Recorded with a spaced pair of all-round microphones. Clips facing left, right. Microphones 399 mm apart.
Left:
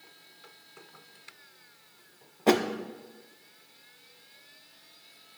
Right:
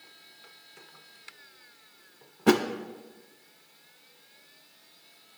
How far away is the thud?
About 0.6 m.